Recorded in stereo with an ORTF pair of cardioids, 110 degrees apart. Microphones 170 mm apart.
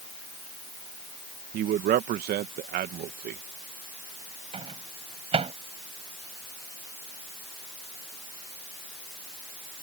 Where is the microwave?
35° right.